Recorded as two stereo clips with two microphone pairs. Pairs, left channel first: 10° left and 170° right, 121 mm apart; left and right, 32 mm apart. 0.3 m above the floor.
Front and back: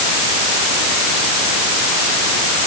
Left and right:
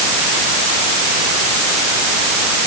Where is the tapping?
No tapping in this recording.